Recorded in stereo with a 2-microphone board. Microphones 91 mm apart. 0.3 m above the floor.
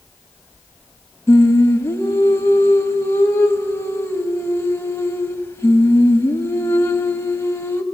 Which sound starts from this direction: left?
Singing, at 1.3 s.